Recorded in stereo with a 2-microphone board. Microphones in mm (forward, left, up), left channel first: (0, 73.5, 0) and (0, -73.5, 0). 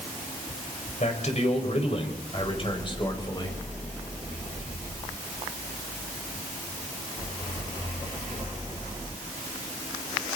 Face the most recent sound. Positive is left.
turn(degrees=30)  # may be behind; listen again after turning